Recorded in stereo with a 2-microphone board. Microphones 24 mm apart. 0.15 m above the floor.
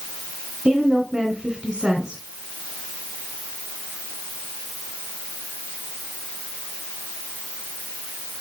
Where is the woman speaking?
25° right (ahead or behind), 1.5 m.